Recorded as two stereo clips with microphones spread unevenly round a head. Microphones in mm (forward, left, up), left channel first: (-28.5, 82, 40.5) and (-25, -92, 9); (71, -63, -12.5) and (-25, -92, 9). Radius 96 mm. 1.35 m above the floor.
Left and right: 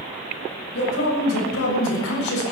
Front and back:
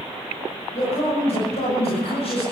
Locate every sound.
0.7 s a man speaking: 70° left, 7 m; by 2.4 s 80° left, 6.5 m